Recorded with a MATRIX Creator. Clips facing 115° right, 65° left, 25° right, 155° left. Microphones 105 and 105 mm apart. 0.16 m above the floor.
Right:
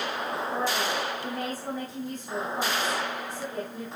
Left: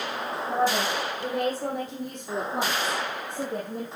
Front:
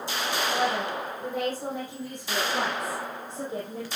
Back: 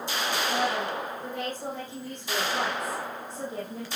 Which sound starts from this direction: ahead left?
A woman speaking, at 0.5 s.